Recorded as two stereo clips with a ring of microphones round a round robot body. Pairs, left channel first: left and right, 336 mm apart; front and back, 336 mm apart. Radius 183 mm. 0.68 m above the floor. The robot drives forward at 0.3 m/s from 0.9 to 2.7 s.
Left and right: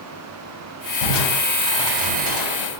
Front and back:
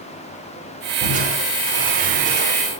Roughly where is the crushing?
Left.